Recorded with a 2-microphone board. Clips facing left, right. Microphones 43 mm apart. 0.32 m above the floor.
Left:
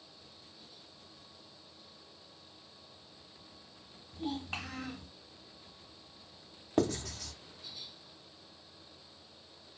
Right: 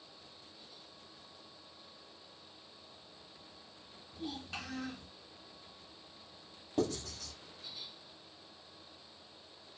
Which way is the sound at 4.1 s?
40° left (ahead or behind).